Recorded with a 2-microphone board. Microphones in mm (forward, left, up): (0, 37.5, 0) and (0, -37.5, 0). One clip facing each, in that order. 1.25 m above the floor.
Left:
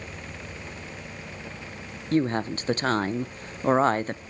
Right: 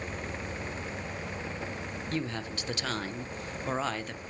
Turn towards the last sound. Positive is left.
turn(degrees=40)  # may be behind; listen again after turning